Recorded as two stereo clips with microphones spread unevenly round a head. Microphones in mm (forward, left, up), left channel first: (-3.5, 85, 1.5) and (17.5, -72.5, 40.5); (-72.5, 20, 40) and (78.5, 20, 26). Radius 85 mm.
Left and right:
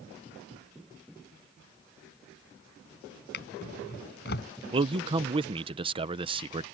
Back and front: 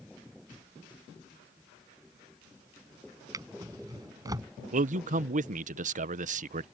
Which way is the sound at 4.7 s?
20° right.